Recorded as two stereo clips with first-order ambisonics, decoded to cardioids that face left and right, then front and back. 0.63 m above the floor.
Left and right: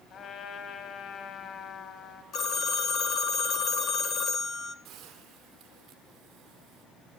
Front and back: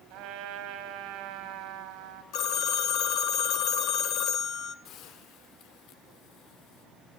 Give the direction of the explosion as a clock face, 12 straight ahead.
I don't hear an explosion.